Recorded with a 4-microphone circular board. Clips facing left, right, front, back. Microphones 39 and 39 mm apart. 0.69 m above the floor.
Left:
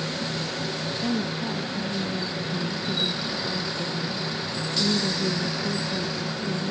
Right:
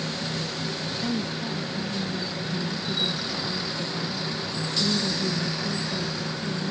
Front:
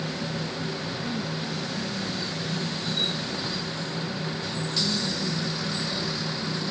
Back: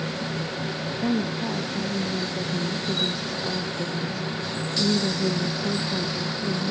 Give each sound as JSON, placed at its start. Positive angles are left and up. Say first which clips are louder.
{"t": 1.0, "sound": "a woman speaking", "louder": "left 2 dB, back 5 dB", "azimuth_deg": 165}